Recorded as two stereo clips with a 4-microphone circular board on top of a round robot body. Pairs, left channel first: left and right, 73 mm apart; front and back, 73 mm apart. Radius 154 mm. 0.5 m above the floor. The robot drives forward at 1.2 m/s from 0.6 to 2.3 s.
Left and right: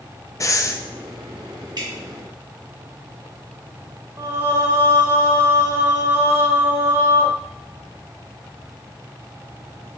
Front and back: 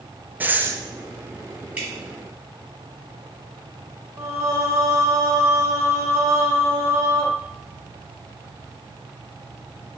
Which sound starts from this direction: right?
Dripping, at 1.8 s.